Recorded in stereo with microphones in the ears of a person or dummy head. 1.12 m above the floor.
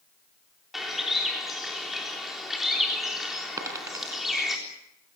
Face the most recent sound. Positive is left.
turn(degrees=-15)  # may be behind; listen again after turning